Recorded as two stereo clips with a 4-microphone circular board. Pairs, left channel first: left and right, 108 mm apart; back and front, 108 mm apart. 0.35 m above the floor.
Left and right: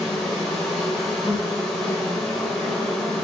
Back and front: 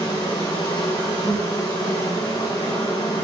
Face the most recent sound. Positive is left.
turn(degrees=175)